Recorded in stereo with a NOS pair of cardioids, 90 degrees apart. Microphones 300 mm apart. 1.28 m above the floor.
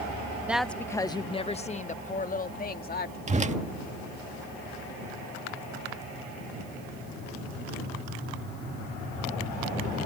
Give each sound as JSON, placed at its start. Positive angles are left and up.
{"t": 0.5, "sound": "a woman speaking", "azimuth_deg": -5}
{"t": 3.3, "sound": "a whoosh", "azimuth_deg": -25}